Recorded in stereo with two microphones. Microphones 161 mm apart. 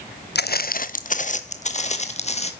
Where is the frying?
No frying in this recording.